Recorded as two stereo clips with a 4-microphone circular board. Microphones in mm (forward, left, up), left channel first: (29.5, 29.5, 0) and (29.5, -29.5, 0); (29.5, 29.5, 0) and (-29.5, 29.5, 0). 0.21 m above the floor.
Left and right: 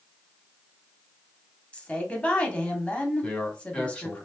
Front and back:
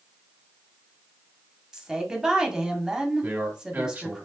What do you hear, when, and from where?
1.7 s a woman speaking: 115° left, 1.2 m
3.2 s a man speaking: 150° left, 1.5 m